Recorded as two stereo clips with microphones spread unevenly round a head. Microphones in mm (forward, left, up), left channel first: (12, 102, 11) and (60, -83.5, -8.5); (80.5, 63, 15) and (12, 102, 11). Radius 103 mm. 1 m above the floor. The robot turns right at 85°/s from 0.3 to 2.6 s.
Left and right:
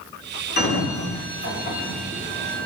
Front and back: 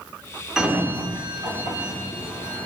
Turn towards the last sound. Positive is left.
turn(degrees=-115)